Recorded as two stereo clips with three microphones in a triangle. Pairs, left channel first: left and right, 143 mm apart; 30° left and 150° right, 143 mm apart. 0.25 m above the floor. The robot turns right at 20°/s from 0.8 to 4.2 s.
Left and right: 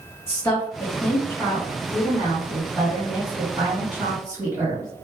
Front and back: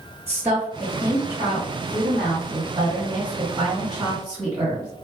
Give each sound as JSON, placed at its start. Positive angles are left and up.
{"t": 0.3, "sound": "a woman speaking", "azimuth_deg": 145, "distance_m": 1.2}